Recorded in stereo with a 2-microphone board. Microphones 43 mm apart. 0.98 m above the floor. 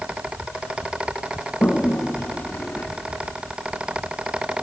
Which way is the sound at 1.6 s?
50° left (ahead or behind).